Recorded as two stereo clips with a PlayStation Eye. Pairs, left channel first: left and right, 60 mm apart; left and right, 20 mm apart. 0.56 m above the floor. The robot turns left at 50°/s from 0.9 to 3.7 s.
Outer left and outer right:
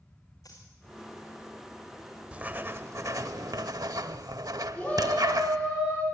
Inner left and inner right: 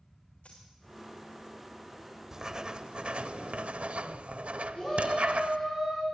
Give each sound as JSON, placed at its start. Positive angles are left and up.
{"t": 0.4, "sound": "a dropped coin", "side_deg": 80, "distance_m": 4.5}
{"t": 2.3, "sound": "writing", "azimuth_deg": -20, "distance_m": 0.7}
{"t": 4.8, "sound": "a shout", "side_deg": 20, "distance_m": 5.5}